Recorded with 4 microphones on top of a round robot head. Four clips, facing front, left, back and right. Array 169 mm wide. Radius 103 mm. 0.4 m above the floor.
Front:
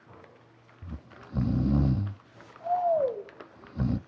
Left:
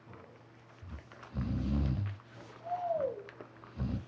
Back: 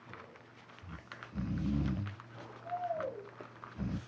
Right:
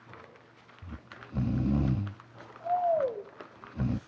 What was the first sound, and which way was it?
Snoring, 30° right.